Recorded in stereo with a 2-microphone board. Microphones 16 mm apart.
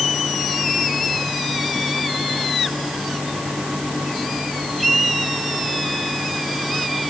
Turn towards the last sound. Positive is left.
No sound to turn to.